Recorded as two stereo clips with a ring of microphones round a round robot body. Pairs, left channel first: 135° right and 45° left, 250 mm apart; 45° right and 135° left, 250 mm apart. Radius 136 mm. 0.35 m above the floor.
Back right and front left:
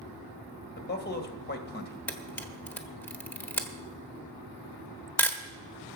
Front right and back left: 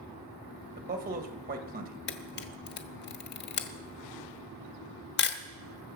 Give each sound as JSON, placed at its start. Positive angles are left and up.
{"t": 0.8, "sound": "a man speaking", "azimuth_deg": -175, "distance_m": 1.9}
{"t": 2.1, "sound": "a camera shutter", "azimuth_deg": -55, "distance_m": 1.1}